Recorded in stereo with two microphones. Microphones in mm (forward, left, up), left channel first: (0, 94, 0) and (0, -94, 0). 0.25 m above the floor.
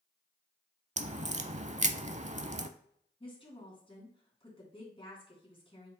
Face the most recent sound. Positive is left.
turn(degrees=30)  # may be behind; listen again after turning